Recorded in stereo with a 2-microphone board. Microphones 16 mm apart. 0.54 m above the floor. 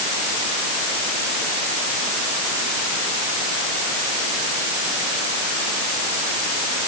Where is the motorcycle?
I don't hear a motorcycle.